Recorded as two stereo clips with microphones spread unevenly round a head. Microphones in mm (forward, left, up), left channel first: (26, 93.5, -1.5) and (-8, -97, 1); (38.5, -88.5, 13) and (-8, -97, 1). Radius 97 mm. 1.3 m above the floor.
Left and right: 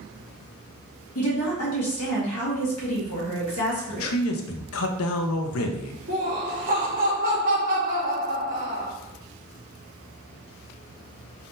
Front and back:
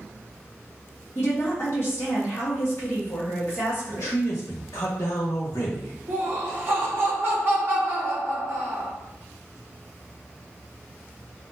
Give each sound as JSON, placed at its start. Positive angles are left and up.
{"t": 1.1, "sound": "a woman speaking", "azimuth_deg": 85, "distance_m": 1.5}
{"t": 3.9, "sound": "a man speaking", "azimuth_deg": 70, "distance_m": 0.5}
{"t": 6.1, "sound": "laughter", "azimuth_deg": -145, "distance_m": 1.2}